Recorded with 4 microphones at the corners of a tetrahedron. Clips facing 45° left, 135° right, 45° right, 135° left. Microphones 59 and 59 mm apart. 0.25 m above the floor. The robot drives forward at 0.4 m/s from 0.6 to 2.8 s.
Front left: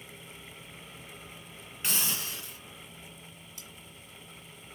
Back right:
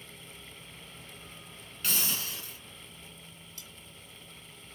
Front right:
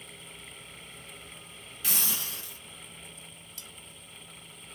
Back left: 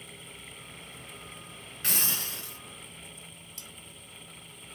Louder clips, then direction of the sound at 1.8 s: Even, back left 1 dB; 110° left.